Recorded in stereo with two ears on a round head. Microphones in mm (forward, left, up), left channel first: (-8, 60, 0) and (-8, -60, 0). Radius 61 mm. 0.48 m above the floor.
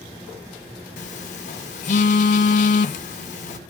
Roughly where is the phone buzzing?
Left.